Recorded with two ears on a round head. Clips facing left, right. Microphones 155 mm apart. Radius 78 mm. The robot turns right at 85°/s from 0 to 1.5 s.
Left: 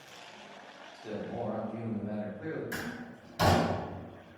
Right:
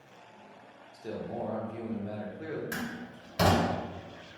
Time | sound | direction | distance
0.9 | a man speaking | 140° right | 0.8 m
2.7 | a door slam | 70° right (ahead or behind) | 1.4 m